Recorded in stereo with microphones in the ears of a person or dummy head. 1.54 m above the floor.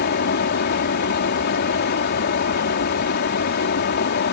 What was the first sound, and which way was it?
A fan, 60° left (ahead or behind).